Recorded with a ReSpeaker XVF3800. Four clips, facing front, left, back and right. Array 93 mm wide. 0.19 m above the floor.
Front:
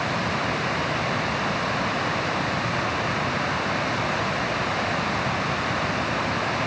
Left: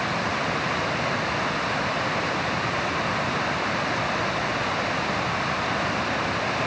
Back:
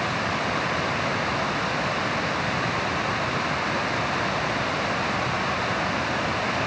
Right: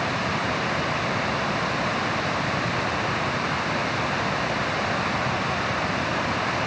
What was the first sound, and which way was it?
Only background noise.